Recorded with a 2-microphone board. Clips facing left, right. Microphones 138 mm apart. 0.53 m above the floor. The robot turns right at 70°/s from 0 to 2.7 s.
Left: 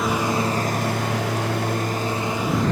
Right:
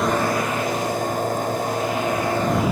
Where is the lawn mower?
Straight ahead; by 2.7 s 170° right.